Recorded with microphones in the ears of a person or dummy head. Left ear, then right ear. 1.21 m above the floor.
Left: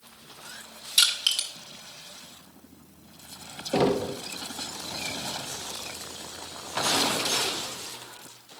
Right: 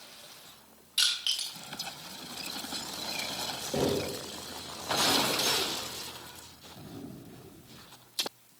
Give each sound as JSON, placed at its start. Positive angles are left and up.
{"t": 1.0, "sound": "crushing", "side_deg": 20, "distance_m": 0.9}
{"t": 3.7, "sound": "knocking", "side_deg": 60, "distance_m": 0.7}